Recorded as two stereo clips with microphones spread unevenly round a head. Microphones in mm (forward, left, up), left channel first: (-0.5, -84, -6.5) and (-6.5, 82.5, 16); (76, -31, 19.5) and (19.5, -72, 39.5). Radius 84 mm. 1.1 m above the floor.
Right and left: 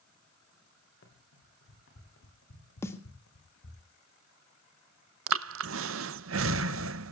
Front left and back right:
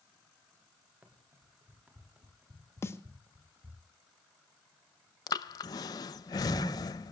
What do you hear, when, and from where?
1.0 s running footsteps: 75° right, 5.5 m; by 3.8 s 105° right, 3.5 m
2.8 s a snare drum: 15° right, 1.9 m
5.3 s breathing: 80° left, 0.6 m